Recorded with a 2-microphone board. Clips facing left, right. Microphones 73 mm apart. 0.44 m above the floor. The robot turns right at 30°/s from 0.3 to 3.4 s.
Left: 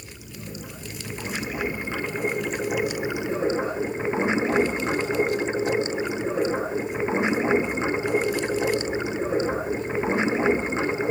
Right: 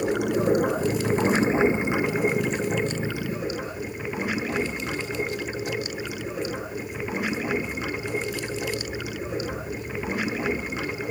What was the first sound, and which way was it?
Running water, 65° right.